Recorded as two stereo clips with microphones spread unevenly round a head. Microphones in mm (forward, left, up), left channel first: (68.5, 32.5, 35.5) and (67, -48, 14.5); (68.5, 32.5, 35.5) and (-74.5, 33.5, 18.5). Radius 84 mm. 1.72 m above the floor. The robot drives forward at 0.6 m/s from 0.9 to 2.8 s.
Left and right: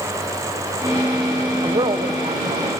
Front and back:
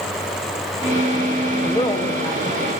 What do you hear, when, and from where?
1.6 s a woman speaking: 65° right, 1.5 m; by 2.7 s 90° right, 1.4 m